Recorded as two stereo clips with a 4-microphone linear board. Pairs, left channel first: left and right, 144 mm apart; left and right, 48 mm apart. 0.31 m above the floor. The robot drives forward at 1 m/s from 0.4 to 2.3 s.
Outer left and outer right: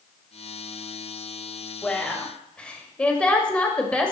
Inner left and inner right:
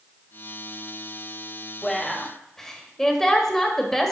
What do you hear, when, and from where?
1.8 s a woman speaking: 5° left (ahead or behind), 1.4 m; by 4.1 s 10° left (ahead or behind), 1.2 m